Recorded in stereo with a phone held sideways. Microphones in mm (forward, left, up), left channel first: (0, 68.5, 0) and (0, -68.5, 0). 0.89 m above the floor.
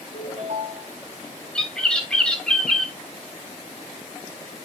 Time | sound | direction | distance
0.1 | a ringtone | 55° right (ahead or behind) | 5 m
1.6 | a bird | 5° left (ahead or behind) | 1.7 m